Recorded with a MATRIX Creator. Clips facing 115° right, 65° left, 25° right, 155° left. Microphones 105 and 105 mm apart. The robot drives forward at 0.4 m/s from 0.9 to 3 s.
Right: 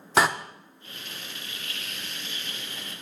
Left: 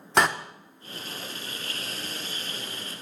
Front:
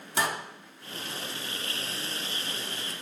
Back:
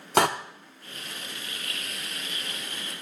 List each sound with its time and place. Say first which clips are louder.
0.2 s a door slam: even, back 8 dB; 160° left, 0.6 m